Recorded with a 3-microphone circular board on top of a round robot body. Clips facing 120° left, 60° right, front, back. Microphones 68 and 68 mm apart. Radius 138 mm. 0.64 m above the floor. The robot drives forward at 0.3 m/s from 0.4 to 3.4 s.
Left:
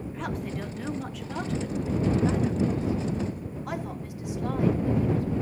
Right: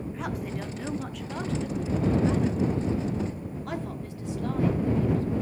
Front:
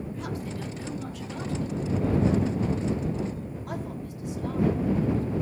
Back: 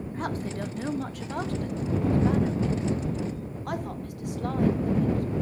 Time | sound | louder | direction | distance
0.1 | a woman speaking | left 2 dB, back 3 dB | 145° right | 1.4 m